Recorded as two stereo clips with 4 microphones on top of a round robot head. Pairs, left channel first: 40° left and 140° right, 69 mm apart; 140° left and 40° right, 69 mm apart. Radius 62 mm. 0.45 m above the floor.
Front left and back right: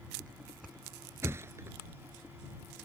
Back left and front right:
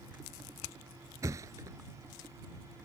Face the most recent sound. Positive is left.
turn(degrees=-85)